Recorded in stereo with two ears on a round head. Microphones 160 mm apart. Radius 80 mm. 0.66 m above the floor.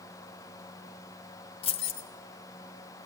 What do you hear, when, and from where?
1.6 s keys jangling: 30° left (ahead or behind), 1.7 m